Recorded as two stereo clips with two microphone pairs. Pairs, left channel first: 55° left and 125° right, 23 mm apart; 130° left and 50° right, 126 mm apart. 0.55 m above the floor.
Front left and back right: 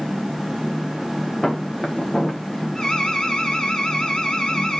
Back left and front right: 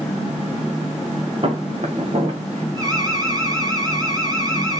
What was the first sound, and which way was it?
Footsteps, 10° right.